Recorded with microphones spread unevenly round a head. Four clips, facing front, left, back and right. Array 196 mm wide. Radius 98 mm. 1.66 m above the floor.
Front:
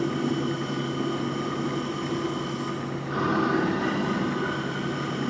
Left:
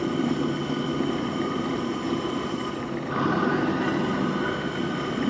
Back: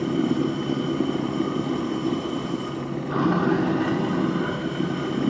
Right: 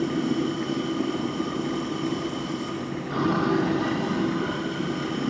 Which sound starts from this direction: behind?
Running water, at 0.0 s.